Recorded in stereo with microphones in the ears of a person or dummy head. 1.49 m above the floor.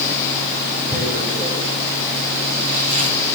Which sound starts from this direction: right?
Tearing paper, at 0.9 s.